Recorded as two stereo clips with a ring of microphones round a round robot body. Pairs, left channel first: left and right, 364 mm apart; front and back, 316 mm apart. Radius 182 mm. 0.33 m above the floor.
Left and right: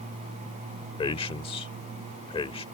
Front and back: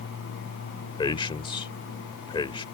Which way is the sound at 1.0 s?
45° left.